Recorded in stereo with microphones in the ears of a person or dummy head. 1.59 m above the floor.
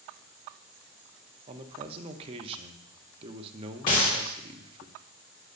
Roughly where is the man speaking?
Right.